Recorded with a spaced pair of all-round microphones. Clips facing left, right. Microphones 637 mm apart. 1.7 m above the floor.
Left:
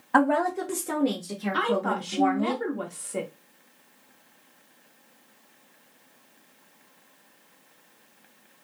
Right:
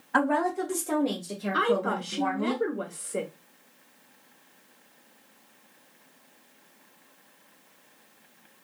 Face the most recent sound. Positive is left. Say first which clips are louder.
# right 2 dB
turn(degrees=25)  # may be behind; listen again after turning